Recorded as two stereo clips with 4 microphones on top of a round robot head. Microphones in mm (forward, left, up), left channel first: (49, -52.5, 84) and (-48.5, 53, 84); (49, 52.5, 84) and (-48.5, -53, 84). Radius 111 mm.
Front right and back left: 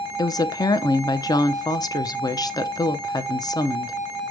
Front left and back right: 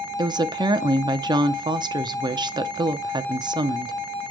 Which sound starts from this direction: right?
A woman speaking, at 0.2 s.